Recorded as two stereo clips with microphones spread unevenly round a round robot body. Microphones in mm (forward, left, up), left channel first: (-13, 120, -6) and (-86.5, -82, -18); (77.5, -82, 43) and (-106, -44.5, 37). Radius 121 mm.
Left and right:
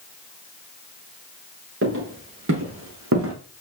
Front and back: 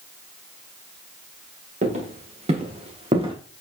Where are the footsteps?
140° right, 5 m; by 3.4 s 130° right, 3.5 m.